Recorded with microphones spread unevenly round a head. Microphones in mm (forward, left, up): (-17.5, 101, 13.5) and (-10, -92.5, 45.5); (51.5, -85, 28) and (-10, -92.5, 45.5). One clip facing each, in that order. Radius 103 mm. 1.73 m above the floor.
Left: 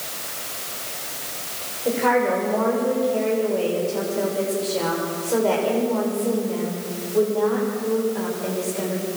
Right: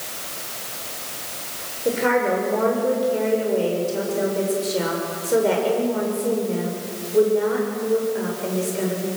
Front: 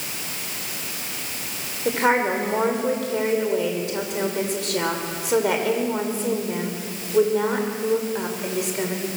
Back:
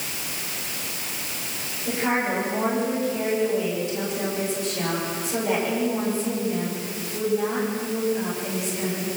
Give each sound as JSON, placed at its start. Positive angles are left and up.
{"t": 1.9, "sound": "a woman speaking", "azimuth_deg": -15, "distance_m": 6.5}